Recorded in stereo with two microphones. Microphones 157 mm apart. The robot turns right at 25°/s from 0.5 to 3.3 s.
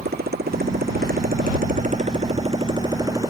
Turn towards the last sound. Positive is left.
turn(degrees=-20)